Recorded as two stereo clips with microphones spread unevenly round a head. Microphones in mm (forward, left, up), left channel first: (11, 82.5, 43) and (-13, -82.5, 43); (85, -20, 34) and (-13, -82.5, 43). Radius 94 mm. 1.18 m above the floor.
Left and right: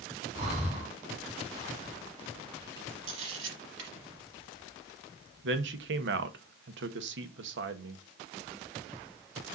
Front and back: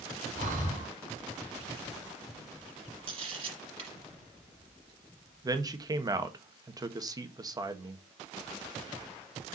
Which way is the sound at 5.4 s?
90° right.